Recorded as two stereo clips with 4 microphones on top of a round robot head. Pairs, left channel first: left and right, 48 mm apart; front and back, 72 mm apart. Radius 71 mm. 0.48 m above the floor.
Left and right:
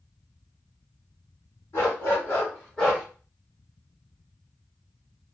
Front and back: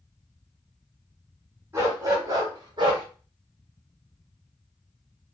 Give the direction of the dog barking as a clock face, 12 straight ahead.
8 o'clock.